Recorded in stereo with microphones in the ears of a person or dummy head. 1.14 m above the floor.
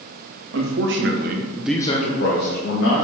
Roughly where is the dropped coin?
I don't hear a dropped coin.